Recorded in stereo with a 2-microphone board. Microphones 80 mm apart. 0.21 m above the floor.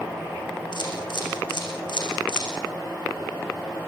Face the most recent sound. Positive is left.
turn(degrees=70)  # may be behind; listen again after turning